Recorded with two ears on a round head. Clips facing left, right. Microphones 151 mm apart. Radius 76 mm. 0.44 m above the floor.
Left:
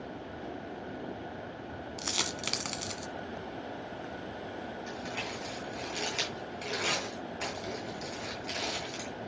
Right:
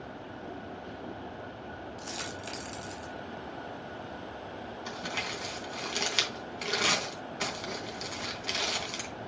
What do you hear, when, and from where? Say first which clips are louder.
2.0 s a dropped coin: left 2 dB; 80° left, 1.2 m
4.9 s crumpling: even; 70° right (ahead or behind), 3.5 m